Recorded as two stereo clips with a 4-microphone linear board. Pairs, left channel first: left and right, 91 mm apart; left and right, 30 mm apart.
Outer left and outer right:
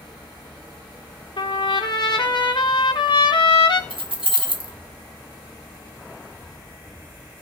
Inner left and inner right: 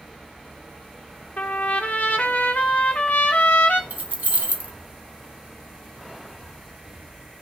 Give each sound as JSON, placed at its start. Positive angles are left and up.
{"t": 1.4, "sound": "a trumpet", "side_deg": 55, "distance_m": 0.5}
{"t": 3.9, "sound": "keys jangling", "side_deg": -80, "distance_m": 0.7}